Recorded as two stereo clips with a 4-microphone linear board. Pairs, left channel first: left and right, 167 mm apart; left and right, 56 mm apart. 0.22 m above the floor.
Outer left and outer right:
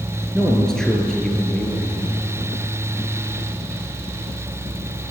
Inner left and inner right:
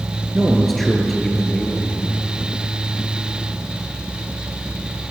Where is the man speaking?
5° left (ahead or behind), 4.5 m.